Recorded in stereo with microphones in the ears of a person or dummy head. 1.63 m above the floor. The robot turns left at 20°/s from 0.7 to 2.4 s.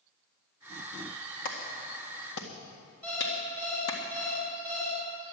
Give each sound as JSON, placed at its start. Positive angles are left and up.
{"t": 1.4, "sound": "a clap", "side_deg": 55, "distance_m": 1.8}
{"t": 3.0, "sound": "an alarm clock", "side_deg": 5, "distance_m": 5.0}